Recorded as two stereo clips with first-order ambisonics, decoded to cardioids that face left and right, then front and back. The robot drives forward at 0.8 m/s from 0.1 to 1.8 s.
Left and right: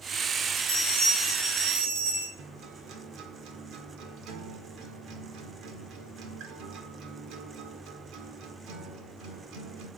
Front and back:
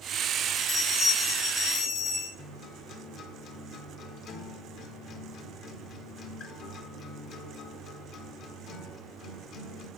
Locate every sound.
0.6 s a bell: 50° right, 4.5 m; by 2.3 s 60° right, 4 m
2.4 s a guitar: 55° right, 1.4 m